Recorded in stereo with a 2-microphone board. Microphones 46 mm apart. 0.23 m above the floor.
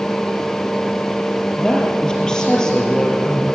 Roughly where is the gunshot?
No gunshot in this recording.